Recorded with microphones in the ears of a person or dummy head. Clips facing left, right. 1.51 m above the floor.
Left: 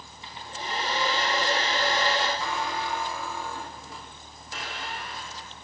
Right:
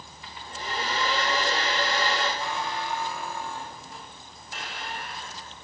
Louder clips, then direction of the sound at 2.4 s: Left 1 dB; 55° left (ahead or behind).